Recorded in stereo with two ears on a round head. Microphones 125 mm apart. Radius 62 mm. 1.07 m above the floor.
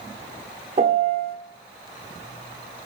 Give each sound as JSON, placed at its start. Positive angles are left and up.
{"t": 0.8, "sound": "a piano", "side_deg": -45, "distance_m": 0.9}